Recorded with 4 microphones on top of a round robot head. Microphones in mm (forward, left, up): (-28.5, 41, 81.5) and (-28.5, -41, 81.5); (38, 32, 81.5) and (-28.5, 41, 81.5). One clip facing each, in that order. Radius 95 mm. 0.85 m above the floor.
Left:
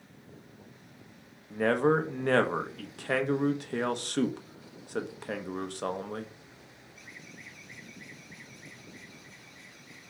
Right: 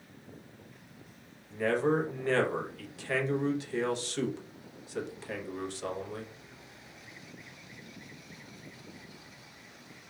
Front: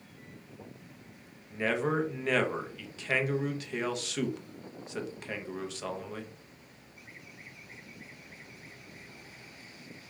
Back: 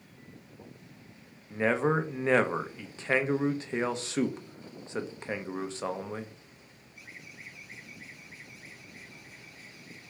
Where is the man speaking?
120° left, 0.6 m.